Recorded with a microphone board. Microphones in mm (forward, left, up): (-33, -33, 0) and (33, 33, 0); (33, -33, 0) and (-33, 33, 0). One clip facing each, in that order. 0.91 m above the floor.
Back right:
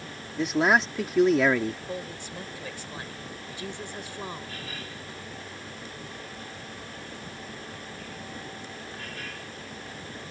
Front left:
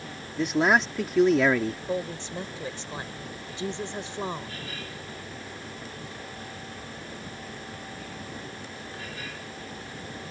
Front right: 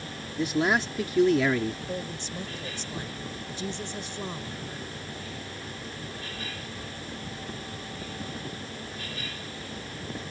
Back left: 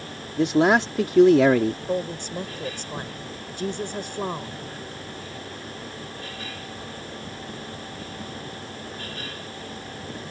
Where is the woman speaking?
110° left.